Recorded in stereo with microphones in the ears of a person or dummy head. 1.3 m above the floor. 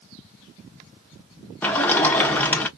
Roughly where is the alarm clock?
No alarm clock in this recording.